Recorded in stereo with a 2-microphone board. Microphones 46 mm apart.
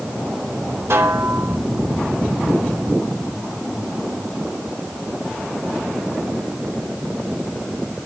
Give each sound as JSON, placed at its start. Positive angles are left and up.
{"t": 0.9, "sound": "a snare drum", "side_deg": -65, "distance_m": 3.5}